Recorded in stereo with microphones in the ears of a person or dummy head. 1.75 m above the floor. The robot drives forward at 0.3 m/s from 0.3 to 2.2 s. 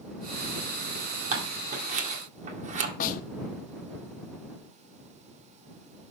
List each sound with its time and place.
1.3 s scissors: 40° right (ahead or behind), 2.0 m; by 2.9 s 45° right (ahead or behind), 1.9 m
3.0 s a snare drum: 40° left (ahead or behind), 1.0 m